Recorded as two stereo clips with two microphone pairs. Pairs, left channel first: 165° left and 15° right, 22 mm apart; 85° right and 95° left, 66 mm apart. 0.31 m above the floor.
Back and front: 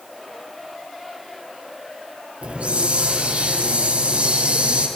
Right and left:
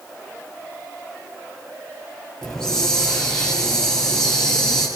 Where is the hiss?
5° right, 7.5 m.